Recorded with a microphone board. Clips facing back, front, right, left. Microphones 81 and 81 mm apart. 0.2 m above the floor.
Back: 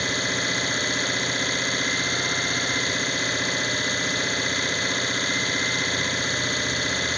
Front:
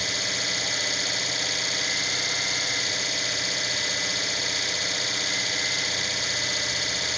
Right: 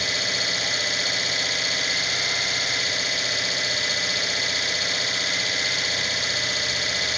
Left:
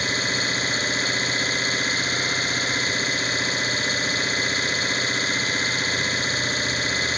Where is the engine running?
140° left, 1.1 m.